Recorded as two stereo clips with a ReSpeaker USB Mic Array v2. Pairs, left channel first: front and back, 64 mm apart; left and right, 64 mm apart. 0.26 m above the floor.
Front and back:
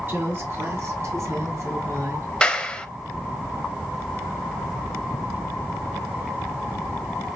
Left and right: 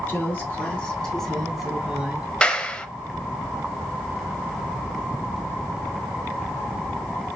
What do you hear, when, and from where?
0.1 s a woman speaking: 140° left, 2.5 m; by 2.3 s 160° right, 2.5 m
2.4 s a clap: 50° left, 0.7 m